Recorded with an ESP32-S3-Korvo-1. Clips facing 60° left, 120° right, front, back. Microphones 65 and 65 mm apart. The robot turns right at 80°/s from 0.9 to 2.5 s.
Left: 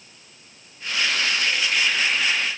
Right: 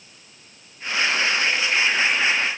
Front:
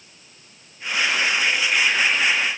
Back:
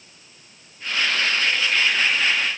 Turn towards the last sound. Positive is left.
No sound to turn to.